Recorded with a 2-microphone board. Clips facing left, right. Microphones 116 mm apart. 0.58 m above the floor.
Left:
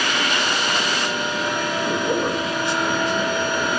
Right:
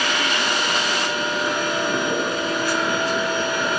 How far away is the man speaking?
About 2.5 m.